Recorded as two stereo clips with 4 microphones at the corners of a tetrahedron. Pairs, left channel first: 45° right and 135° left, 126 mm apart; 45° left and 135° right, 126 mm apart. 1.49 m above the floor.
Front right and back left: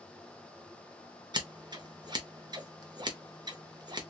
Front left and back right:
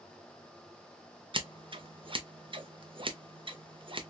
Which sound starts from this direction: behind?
Scissors, at 1.3 s.